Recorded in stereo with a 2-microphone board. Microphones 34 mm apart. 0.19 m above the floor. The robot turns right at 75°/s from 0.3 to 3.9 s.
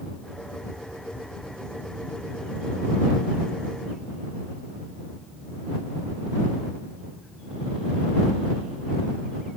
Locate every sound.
Only background noise.